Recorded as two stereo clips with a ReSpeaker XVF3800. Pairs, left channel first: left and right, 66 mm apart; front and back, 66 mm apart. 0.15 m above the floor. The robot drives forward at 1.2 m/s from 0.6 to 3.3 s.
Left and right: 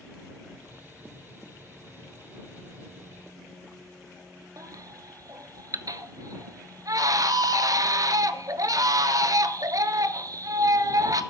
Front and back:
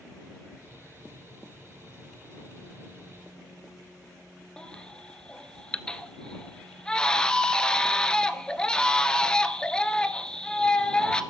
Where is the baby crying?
75° right, 0.7 m.